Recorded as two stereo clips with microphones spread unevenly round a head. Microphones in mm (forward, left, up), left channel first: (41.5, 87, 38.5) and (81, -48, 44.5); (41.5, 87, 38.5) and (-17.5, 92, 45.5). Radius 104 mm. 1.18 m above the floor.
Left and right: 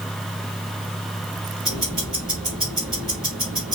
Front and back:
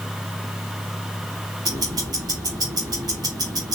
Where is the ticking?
160° right, 3 m.